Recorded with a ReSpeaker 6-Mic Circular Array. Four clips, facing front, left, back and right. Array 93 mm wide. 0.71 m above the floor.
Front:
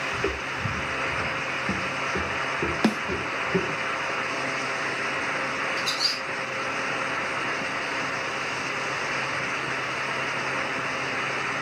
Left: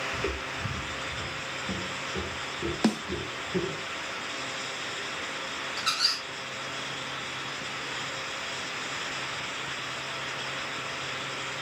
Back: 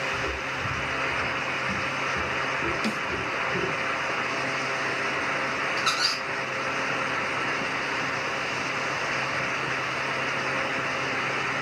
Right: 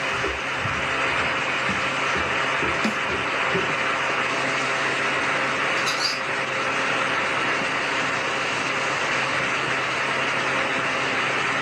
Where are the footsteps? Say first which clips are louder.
Right 7 dB, front 2 dB; 10° right, 0.7 m; by 3.8 s 25° right, 2.5 m.